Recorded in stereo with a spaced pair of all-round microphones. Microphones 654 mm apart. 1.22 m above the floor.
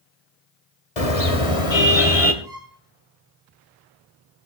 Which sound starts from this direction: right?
A violin, at 2.4 s.